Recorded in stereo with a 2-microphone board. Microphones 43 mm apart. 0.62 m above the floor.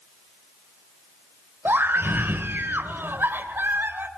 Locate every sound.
1.6 s a scream: 55° right (ahead or behind), 2.5 m